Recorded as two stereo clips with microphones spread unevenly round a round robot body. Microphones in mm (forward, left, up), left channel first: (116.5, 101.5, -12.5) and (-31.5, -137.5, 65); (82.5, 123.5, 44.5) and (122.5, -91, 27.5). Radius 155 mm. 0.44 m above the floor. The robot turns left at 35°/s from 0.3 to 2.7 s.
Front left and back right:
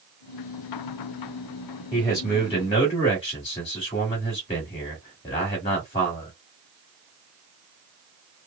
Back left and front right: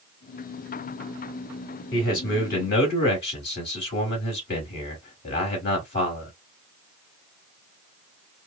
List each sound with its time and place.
1.9 s a man speaking: 115° left, 1.4 m; by 6.3 s 90° left, 1.4 m